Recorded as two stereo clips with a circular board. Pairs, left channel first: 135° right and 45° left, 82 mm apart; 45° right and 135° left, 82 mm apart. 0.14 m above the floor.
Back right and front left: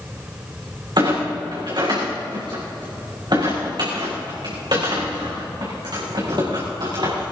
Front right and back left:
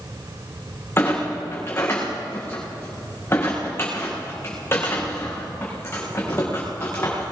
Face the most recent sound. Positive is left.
turn(degrees=15)